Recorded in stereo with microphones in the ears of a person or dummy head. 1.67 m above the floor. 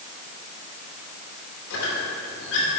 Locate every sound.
1.7 s a squeak: 65° left (ahead or behind), 2.5 m